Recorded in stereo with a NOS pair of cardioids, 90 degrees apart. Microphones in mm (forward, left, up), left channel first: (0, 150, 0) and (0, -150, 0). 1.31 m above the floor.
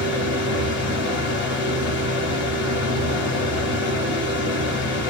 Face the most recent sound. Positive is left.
turn(degrees=40)